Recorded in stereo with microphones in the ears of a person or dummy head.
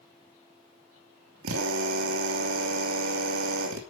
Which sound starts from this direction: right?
A drill, at 1.4 s.